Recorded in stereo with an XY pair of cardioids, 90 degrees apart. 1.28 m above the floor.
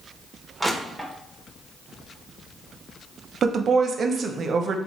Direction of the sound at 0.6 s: 10° right.